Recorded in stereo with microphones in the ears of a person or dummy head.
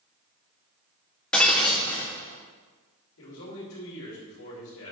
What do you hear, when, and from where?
1.3 s breaking glass: 5° left (ahead or behind), 1.6 m
3.2 s a man speaking: 75° left (ahead or behind), 2.5 m